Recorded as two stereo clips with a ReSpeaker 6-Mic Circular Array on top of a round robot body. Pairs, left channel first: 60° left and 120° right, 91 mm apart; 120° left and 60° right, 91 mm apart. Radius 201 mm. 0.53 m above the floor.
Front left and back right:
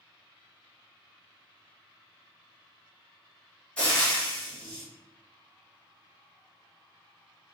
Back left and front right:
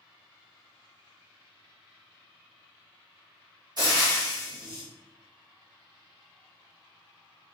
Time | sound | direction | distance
3.8 | frying | 20° right | 1.6 m